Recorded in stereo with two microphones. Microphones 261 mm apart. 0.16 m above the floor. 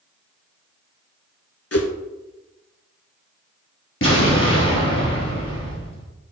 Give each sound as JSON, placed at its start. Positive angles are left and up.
{"t": 1.7, "sound": "a whoosh", "side_deg": 65, "distance_m": 0.7}
{"t": 4.0, "sound": "an explosion", "side_deg": 50, "distance_m": 3.0}